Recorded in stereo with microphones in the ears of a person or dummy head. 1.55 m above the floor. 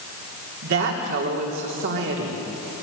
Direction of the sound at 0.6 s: 65° right (ahead or behind).